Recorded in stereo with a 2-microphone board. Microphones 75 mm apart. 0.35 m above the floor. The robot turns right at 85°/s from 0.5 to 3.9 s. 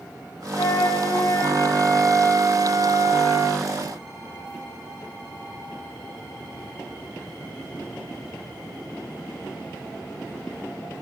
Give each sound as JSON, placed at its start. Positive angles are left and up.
{"t": 0.6, "sound": "a flute", "azimuth_deg": 60, "distance_m": 0.9}